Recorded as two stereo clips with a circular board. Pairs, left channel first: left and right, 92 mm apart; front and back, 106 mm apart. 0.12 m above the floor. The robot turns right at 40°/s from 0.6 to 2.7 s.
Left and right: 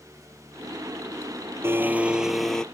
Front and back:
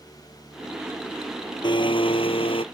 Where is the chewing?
No chewing in this recording.